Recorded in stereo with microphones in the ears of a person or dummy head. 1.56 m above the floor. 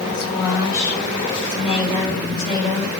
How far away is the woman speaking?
About 4.5 m.